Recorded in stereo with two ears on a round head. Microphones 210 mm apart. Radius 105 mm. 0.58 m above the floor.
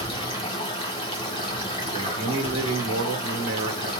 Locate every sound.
0.0 s running water: 25° left (ahead or behind), 1.2 m
1.9 s a man speaking: 65° right (ahead or behind), 1.3 m